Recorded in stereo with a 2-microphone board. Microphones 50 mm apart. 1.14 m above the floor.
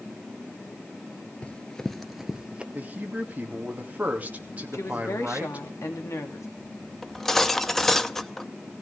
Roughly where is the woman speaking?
Left.